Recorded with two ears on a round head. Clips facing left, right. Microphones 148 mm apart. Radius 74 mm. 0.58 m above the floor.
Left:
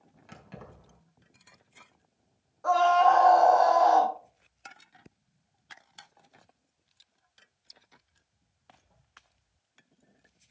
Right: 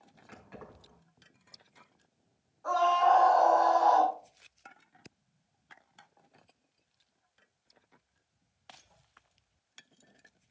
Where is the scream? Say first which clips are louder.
Left 4 dB; 70° left (ahead or behind), 4 m.